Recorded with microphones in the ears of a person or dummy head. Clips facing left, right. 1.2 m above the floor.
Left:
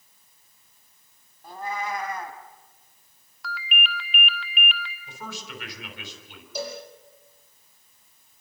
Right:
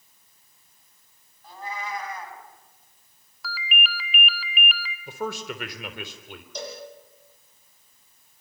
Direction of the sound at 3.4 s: 5° right (ahead or behind).